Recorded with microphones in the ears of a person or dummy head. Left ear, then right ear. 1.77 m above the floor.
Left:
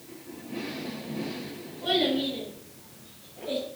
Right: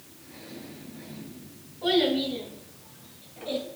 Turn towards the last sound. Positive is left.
turn(degrees=-30)  # may be behind; listen again after turning